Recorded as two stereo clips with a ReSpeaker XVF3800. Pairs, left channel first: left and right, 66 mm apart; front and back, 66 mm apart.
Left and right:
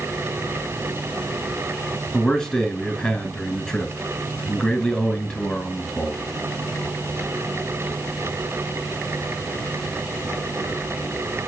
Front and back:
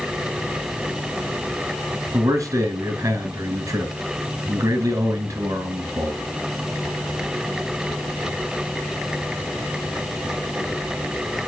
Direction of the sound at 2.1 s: 165° left.